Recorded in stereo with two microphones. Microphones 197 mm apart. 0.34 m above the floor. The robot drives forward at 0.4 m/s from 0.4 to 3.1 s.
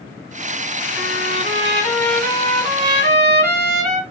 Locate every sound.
1.0 s a trumpet: 55° right (ahead or behind), 2.5 m; by 4.0 s 45° right (ahead or behind), 3 m